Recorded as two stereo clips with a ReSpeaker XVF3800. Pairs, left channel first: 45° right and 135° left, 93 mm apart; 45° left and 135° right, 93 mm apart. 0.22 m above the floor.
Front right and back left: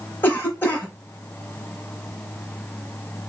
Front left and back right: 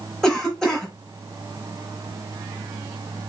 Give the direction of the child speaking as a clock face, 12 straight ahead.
No child speaking in this recording.